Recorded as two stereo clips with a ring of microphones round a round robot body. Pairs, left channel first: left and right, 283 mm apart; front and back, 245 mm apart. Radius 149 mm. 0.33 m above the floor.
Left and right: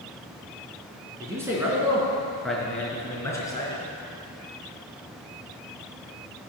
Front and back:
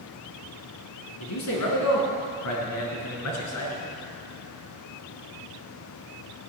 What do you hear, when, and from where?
1.2 s a man speaking: 10° right, 4 m; by 3.8 s 15° left, 4.5 m